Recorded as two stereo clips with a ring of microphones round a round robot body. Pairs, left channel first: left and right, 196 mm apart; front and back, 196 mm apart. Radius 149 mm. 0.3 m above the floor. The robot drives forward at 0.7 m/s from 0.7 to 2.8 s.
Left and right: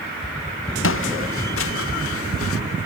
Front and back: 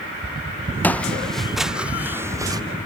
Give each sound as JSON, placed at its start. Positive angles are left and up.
{"t": 0.8, "sound": "footsteps", "azimuth_deg": 80}